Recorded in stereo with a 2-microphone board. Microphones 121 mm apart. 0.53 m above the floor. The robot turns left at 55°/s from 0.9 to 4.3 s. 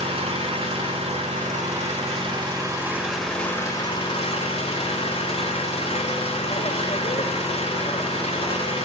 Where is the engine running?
55° right, 1.2 m; by 8.9 s 120° left, 1.2 m.